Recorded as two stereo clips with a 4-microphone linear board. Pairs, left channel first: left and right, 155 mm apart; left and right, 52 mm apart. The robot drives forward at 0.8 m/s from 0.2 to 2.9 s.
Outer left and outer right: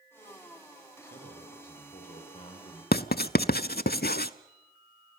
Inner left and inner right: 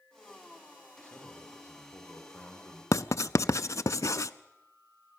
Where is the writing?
85° left, 0.5 m.